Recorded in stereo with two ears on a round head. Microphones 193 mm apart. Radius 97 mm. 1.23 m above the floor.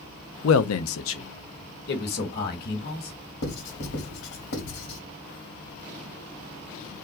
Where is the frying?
No frying in this recording.